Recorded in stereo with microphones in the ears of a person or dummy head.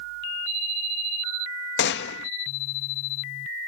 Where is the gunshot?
55° left (ahead or behind).